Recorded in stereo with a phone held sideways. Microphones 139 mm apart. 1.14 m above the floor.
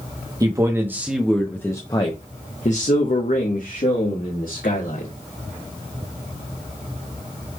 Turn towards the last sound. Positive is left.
turn(degrees=85)